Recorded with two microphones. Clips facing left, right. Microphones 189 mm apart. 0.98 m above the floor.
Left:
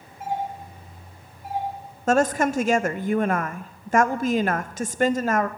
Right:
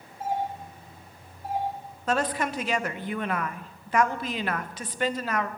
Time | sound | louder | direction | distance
0.2 | a doorbell | left 1 dB | 35° right (ahead or behind) | 5.5 m
2.1 | a woman speaking | left 7 dB | 45° left (ahead or behind) | 0.6 m